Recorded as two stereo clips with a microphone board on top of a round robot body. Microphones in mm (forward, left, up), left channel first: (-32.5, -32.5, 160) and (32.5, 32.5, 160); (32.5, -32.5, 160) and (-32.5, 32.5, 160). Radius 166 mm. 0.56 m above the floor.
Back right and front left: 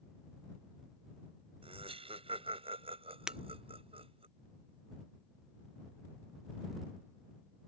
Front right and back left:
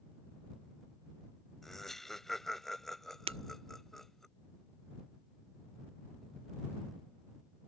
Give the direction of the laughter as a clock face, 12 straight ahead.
11 o'clock.